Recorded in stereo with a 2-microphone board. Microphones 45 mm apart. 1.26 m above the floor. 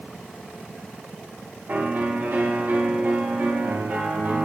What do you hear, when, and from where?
1.7 s a piano: 50° right (ahead or behind), 2.5 m